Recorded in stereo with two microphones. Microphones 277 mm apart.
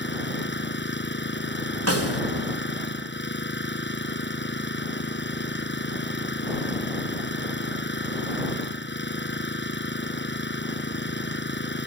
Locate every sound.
0.0 s an engine running: 40° left (ahead or behind)
1.9 s a snare drum: 60° right (ahead or behind)